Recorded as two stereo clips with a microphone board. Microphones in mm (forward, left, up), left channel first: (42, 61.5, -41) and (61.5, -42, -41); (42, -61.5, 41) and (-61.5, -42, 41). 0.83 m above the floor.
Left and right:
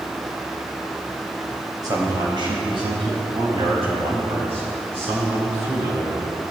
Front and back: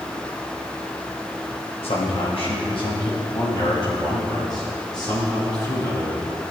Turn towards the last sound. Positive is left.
turn(degrees=-70)